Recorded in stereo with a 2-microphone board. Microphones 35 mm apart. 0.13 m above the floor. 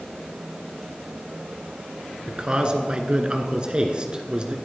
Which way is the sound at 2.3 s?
30° right (ahead or behind).